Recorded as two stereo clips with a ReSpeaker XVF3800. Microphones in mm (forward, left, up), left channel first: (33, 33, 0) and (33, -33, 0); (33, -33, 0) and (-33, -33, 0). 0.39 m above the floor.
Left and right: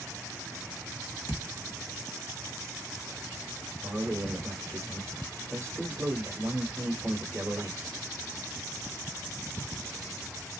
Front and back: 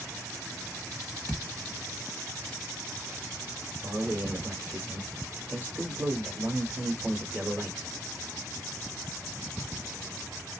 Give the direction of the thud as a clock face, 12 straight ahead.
2 o'clock.